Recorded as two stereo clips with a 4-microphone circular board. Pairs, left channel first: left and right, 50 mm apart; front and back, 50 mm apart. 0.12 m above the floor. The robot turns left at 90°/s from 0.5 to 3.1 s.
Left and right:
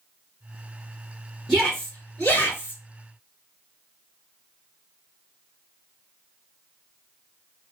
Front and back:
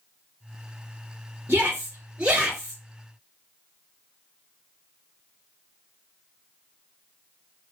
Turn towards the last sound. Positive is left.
turn(degrees=55)